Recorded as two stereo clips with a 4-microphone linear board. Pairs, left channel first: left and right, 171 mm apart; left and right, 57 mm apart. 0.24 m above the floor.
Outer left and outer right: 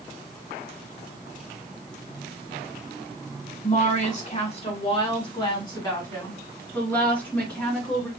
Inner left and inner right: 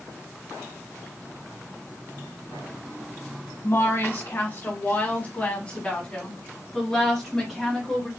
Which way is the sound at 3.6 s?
45° left (ahead or behind).